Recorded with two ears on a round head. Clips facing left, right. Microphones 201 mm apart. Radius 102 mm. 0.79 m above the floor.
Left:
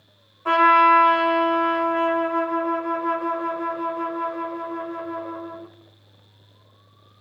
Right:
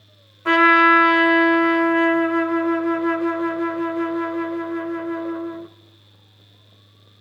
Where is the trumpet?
25° right (ahead or behind), 0.6 m.